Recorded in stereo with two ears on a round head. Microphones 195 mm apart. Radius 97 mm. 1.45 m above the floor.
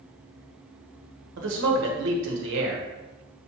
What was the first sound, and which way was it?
A man speaking, 60° right (ahead or behind).